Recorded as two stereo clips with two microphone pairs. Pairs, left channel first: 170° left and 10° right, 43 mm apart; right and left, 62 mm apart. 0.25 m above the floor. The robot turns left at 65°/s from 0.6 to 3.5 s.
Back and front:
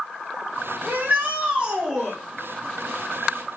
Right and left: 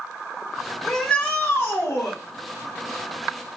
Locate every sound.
0.8 s a shout: 5° right, 1.5 m; by 2.2 s 90° right, 1.5 m